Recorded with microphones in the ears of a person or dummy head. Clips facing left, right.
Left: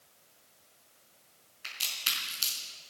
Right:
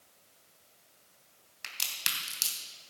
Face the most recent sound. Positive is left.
turn(degrees=-80)